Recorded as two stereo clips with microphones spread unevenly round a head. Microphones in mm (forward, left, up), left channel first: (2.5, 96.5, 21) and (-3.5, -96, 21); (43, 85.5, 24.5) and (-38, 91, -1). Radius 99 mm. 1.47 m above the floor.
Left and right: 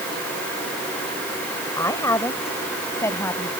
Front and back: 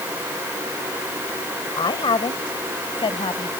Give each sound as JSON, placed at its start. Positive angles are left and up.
{"t": 1.8, "sound": "a woman speaking", "azimuth_deg": 10}